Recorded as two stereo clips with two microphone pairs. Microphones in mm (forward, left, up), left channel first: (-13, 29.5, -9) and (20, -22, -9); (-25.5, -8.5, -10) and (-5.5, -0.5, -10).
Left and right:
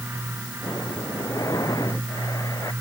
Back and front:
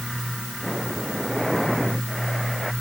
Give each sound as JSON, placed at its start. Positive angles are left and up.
{"t": 0.6, "sound": "breathing", "azimuth_deg": 120}